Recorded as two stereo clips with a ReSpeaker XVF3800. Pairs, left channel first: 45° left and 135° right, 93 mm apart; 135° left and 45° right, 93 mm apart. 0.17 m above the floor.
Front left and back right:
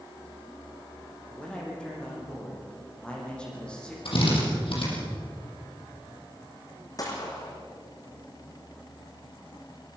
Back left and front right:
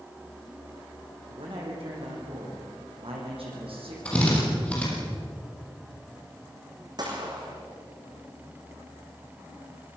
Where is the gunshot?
Straight ahead, 4 m.